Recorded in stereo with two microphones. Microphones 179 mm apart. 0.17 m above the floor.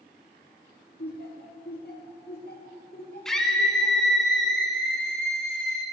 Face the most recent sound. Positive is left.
turn(degrees=5)  # may be behind; listen again after turning